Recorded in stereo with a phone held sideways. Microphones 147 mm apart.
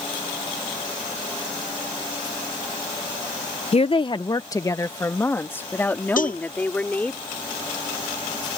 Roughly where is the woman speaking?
Left.